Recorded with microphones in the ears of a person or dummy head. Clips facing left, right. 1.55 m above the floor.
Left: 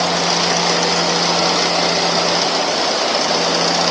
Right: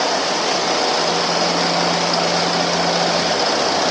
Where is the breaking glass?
No breaking glass in this recording.